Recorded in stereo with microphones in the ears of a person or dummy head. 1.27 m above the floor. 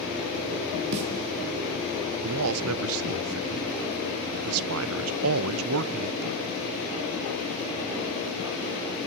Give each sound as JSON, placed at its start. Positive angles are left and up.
{"t": 0.9, "sound": "a snare drum", "side_deg": -60, "distance_m": 1.8}
{"t": 2.2, "sound": "a man speaking", "side_deg": -80, "distance_m": 0.6}